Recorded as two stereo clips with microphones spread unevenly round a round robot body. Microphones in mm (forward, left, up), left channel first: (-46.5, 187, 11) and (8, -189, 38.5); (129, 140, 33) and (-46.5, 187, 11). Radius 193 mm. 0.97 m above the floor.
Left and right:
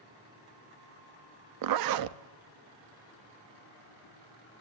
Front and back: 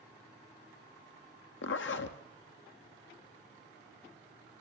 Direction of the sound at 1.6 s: 45° right.